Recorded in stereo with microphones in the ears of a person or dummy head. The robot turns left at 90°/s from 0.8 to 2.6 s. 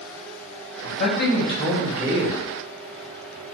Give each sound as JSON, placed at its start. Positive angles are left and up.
{"t": 0.8, "sound": "a man speaking", "azimuth_deg": 85, "distance_m": 0.9}